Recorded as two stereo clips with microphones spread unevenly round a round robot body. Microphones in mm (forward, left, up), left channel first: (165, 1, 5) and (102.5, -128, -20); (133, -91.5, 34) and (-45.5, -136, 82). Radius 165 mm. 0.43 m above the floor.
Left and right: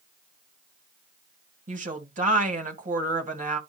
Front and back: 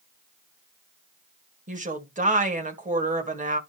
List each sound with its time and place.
1.7 s a woman speaking: 115° right, 2 m